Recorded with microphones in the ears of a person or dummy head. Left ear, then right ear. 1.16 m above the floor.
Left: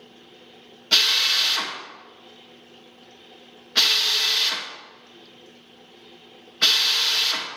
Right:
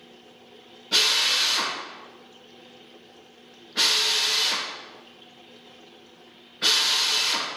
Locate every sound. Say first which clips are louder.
0.9 s a drill: left 2 dB; 35° left (ahead or behind), 1.7 m